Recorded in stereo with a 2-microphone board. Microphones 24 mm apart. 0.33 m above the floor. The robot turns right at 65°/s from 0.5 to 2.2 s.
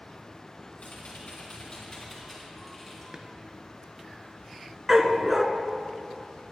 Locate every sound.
0.8 s typing on a keyboard: 85° left, 3 m; by 3.0 s 175° left, 3 m
3.1 s a drawer: 25° right (ahead or behind), 1.2 m
4.9 s a dog barking: 15° right (ahead or behind), 0.8 m